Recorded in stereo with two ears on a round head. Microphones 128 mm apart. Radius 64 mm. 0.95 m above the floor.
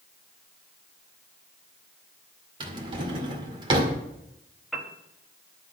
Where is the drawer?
35° right (ahead or behind), 2.0 m.